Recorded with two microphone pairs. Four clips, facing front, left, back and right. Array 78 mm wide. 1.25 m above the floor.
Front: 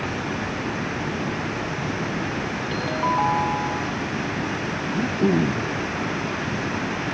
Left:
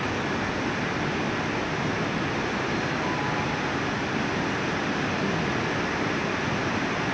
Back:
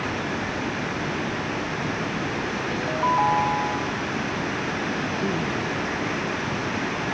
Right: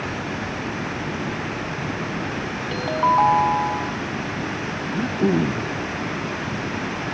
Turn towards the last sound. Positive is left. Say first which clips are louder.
# right 5 dB, front 4 dB
turn(degrees=-65)